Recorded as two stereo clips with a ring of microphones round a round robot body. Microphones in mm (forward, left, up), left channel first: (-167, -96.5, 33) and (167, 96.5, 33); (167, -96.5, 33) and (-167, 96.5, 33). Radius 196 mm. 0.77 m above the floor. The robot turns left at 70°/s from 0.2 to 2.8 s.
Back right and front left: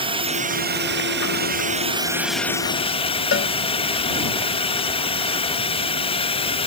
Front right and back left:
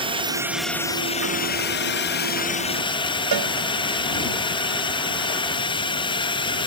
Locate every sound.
0.0 s a drone: 90° left; by 6.7 s 90° right
3.3 s a cowbell: 160° left